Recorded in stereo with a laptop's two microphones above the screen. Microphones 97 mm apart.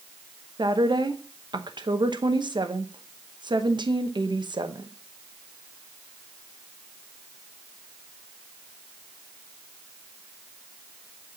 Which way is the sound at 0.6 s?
50° right (ahead or behind).